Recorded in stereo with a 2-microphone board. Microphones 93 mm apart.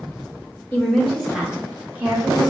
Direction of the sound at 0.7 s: 20° left (ahead or behind).